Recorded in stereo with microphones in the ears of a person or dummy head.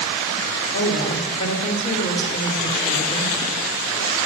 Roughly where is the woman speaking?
Left.